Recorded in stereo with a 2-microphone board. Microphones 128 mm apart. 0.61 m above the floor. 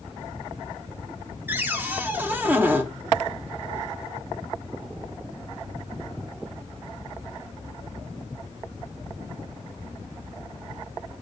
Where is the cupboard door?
15° right (ahead or behind), 0.6 m.